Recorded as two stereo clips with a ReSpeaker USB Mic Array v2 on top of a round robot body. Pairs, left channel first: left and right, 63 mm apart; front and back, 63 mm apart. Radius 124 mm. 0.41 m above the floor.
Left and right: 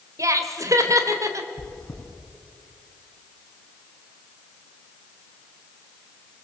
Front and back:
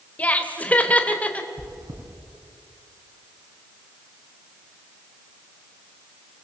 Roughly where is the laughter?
Ahead right.